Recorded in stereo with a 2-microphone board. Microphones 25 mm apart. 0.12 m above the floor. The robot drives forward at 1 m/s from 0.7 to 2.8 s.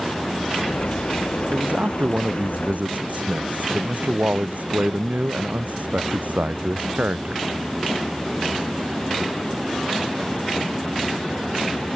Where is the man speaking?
70° right (ahead or behind); by 7.4 s 75° right (ahead or behind).